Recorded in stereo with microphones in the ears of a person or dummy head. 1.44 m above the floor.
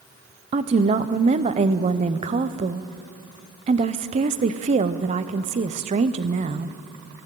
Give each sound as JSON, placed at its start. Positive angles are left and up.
{"t": 0.5, "sound": "a woman speaking", "side_deg": -30, "distance_m": 0.5}